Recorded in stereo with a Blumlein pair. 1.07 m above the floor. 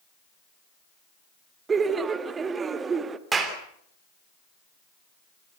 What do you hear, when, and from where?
1.7 s laughter: 20° right, 1.4 m
3.3 s a clap: 15° right, 3 m